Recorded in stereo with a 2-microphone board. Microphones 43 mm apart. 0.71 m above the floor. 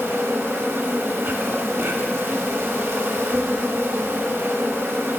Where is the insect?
65° right (ahead or behind), 0.8 m.